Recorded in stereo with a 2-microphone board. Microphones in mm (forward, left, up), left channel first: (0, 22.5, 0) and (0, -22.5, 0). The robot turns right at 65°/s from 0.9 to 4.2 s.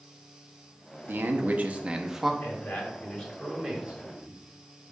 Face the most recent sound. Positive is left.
turn(degrees=-130)